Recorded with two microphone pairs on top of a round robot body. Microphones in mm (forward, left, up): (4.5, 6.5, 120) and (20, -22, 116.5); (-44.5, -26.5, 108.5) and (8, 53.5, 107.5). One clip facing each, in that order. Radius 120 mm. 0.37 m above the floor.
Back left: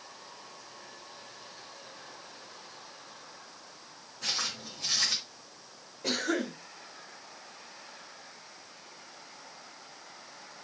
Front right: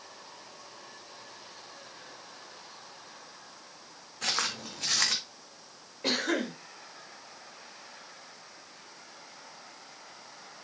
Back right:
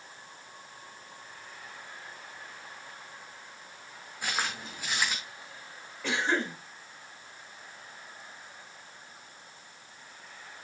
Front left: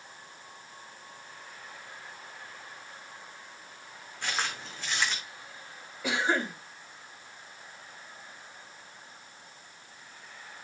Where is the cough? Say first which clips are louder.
Front right 1 dB, front left 1 dB; 25° right, 5 m.